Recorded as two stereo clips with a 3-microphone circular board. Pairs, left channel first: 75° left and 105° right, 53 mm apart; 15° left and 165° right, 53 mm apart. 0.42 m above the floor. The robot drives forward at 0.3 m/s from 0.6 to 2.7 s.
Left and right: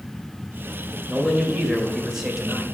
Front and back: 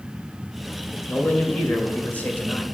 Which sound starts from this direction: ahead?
A man speaking, at 1.1 s.